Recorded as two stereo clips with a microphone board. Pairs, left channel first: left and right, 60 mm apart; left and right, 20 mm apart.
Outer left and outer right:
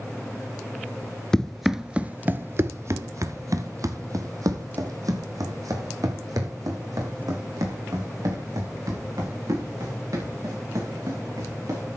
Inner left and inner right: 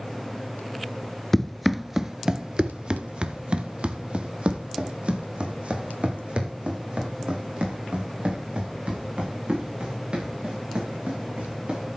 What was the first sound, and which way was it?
Running footsteps, 15° left (ahead or behind).